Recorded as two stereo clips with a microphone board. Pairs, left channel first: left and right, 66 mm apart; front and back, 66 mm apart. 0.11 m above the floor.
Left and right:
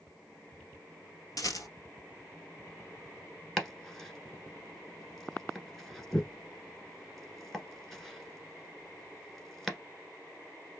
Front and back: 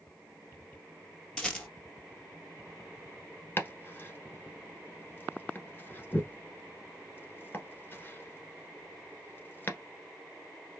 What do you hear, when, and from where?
1.4 s a rattle: 70° left, 1.3 m
3.6 s chopping: 5° left, 1.2 m